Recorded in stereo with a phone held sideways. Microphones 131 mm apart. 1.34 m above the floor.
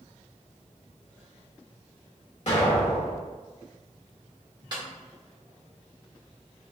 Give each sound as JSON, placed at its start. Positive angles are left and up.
{"t": 2.5, "sound": "an explosion", "side_deg": 60, "distance_m": 1.6}
{"t": 4.7, "sound": "a snare drum", "side_deg": -35, "distance_m": 1.2}